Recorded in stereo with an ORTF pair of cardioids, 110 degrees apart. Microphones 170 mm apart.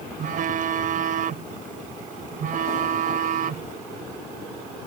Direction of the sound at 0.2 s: 55° right.